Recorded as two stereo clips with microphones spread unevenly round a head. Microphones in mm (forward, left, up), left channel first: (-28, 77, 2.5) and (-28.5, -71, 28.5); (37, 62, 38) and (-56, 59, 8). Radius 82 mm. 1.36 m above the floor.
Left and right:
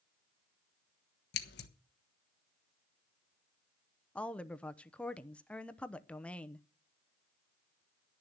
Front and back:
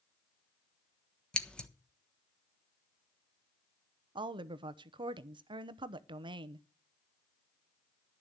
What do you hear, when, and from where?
1.3 s scissors: 80° left, 1.2 m
4.2 s a woman speaking: 170° left, 0.8 m